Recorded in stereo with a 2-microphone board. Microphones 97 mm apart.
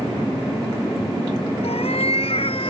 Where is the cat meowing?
80° left; by 2.7 s 65° left (ahead or behind).